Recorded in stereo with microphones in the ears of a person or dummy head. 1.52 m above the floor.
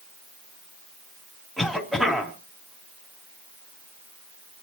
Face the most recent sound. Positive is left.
turn(degrees=0)  # may be behind; listen again after turning